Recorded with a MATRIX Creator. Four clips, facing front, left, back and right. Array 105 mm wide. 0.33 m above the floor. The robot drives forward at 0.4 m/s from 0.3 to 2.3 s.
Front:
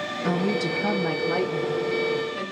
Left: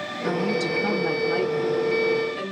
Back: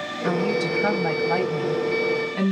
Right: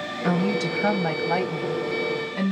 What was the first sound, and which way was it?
A woman speaking, 115° right.